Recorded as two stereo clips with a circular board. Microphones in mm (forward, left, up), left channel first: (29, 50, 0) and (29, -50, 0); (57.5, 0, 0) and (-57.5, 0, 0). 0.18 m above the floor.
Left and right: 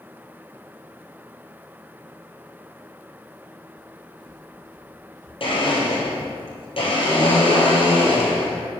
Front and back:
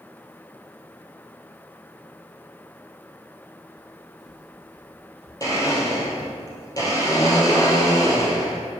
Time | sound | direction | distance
3.8 | footsteps | 50° right | 2 m
5.4 | a blender | 60° left | 2.5 m